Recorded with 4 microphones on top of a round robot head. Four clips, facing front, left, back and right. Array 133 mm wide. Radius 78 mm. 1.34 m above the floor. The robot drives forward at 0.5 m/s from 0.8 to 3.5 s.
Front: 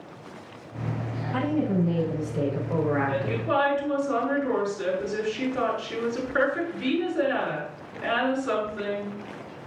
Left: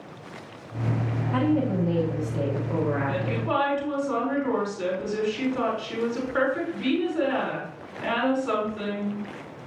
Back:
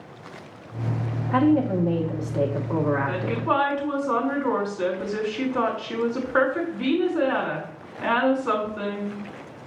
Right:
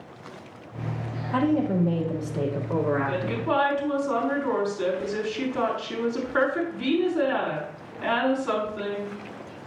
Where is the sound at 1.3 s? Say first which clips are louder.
Right 1 dB, back 6 dB; 170° right, 2.5 m.